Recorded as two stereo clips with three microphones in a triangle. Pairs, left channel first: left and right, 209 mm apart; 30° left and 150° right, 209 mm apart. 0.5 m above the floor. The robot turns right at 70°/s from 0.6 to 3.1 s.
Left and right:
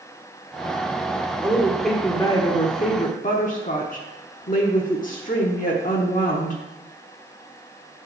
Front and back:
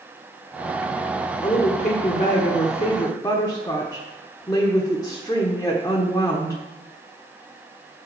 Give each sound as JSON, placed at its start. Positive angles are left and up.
{"t": 1.4, "sound": "a woman speaking", "azimuth_deg": -30, "distance_m": 0.9}